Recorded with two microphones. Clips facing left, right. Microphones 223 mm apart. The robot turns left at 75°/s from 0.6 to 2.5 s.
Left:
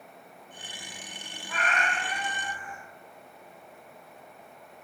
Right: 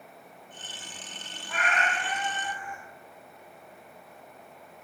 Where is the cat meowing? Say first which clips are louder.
Right 1 dB; 5° left, 1.0 m; by 2.8 s 70° right, 1.0 m.